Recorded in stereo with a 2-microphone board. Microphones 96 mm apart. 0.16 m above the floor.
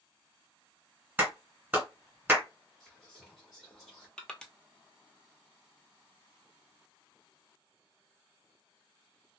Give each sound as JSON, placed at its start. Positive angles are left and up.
{"t": 1.2, "sound": "a clap", "side_deg": -15, "distance_m": 1.7}
{"t": 2.8, "sound": "whispering", "side_deg": 0, "distance_m": 1.3}
{"t": 4.2, "sound": "crushing", "side_deg": 10, "distance_m": 0.6}